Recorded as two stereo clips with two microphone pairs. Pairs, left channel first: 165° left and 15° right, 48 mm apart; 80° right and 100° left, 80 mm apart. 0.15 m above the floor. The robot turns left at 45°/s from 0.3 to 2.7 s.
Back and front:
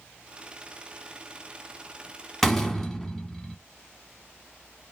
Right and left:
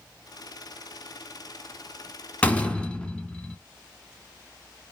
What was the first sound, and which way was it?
A door slam, 120° right.